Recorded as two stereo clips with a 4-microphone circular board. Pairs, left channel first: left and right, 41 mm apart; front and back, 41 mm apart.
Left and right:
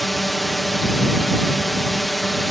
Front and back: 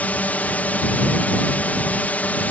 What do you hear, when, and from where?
0.0 s a drone: straight ahead